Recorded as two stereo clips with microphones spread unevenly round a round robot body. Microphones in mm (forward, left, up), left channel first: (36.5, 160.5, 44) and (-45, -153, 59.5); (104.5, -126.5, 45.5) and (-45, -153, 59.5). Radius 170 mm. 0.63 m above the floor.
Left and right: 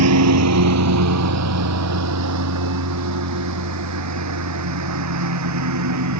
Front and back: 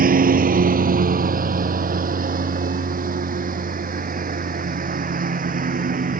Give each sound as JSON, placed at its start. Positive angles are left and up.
{"t": 0.0, "sound": "a lawn mower", "azimuth_deg": -150}